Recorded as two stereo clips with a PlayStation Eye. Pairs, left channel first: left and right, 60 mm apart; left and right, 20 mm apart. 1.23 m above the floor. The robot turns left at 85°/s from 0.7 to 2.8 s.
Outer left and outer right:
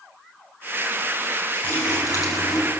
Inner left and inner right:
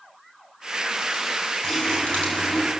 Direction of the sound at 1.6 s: 150° left.